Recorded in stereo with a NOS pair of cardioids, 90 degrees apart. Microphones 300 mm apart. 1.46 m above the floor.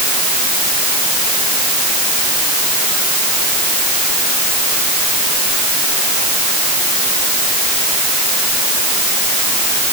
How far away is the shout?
I don't hear a shout.